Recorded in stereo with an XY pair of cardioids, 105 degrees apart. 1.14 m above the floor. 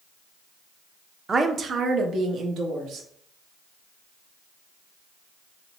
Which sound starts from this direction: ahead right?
A woman speaking, at 1.3 s.